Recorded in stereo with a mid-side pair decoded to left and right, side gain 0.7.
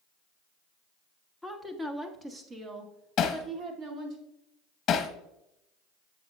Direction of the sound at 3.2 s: 45° left.